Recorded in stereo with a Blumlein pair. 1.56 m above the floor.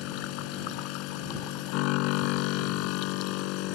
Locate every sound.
0.0 s a machine running: 40° left